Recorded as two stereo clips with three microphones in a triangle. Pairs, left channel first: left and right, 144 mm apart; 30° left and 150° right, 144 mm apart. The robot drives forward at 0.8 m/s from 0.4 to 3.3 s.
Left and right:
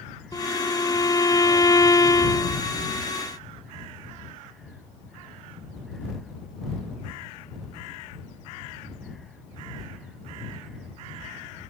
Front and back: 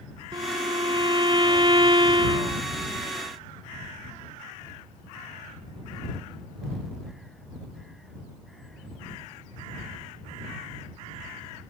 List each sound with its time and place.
0.3 s a violin: 155° left